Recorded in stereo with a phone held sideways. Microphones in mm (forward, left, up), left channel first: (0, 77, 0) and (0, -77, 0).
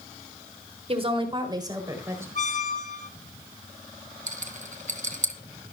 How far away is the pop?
No pop in this recording.